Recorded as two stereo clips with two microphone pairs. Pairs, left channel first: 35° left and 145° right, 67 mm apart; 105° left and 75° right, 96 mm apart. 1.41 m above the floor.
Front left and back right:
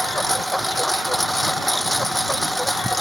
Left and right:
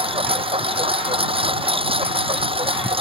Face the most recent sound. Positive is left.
turn(degrees=-55)